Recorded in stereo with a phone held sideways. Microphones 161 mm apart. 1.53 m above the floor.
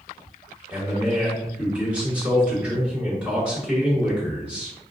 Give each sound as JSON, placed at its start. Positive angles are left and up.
{"t": 0.7, "sound": "a man speaking", "side_deg": -5, "distance_m": 1.8}